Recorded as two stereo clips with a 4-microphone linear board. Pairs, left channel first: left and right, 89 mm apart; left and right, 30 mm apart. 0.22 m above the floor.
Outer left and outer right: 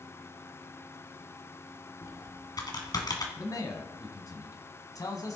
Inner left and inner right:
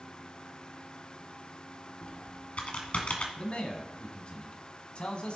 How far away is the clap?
I don't hear a clap.